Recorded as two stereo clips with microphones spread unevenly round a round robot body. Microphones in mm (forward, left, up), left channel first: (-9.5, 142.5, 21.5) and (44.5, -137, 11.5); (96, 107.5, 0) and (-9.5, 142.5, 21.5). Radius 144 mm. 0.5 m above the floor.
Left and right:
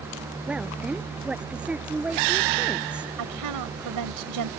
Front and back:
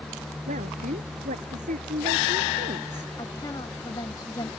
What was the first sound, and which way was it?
A woman speaking, 165° right.